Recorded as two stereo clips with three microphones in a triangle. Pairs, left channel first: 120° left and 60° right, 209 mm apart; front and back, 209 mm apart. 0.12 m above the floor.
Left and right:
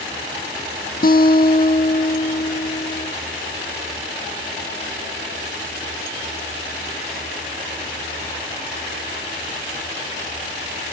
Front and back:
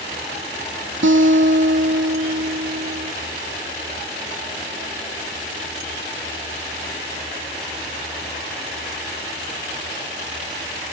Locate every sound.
1.0 s a guitar: 165° left, 1.2 m